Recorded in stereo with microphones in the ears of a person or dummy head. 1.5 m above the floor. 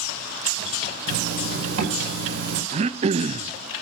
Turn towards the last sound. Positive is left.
turn(degrees=-35)  # may be behind; listen again after turning